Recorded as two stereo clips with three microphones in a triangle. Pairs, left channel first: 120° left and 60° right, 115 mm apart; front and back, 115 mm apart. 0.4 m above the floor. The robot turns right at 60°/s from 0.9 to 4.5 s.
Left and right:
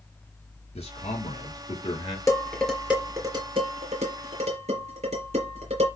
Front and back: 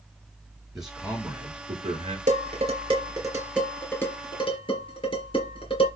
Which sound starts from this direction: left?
A man speaking, at 0.8 s.